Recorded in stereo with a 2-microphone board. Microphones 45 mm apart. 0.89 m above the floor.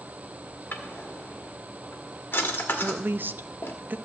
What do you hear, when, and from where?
0.7 s a drawer: 50° left (ahead or behind), 1.5 m
2.8 s a woman speaking: 45° right (ahead or behind), 0.5 m